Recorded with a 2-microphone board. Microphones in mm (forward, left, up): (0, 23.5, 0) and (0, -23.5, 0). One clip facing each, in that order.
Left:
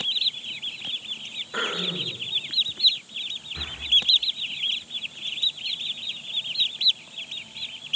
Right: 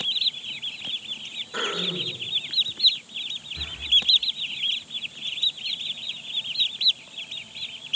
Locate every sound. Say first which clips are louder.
1.5 s throat clearing: even; 20° left (ahead or behind), 1.2 m
3.5 s breathing: even; 45° left (ahead or behind), 0.8 m